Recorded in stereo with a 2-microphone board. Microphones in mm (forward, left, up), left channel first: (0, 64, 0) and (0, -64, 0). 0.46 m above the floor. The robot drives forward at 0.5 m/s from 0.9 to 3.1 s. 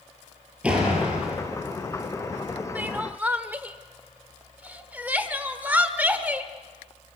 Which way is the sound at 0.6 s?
10° right (ahead or behind).